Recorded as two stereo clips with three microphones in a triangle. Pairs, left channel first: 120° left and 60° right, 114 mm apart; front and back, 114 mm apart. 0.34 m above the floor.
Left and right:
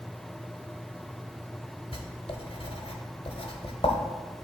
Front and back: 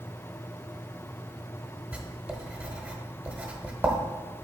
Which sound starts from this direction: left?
Writing, at 1.9 s.